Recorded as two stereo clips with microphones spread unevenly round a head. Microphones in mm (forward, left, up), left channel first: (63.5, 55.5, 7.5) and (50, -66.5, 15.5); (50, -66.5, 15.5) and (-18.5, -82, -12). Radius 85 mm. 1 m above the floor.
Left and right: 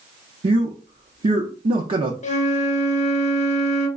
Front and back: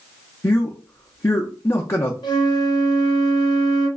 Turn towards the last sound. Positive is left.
turn(degrees=50)